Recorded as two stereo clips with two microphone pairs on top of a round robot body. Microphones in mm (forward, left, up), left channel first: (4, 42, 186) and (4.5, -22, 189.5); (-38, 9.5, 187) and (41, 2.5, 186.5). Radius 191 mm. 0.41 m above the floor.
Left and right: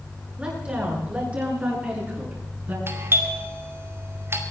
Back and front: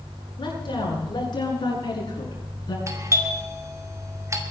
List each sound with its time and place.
0.4 s a woman speaking: 165° right, 9 m; by 2.8 s 150° right, 8 m
2.9 s a doorbell: 45° right, 2.5 m